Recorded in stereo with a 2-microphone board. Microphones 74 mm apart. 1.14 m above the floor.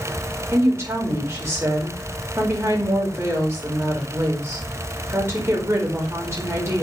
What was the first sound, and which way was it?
A woman speaking, 35° right (ahead or behind).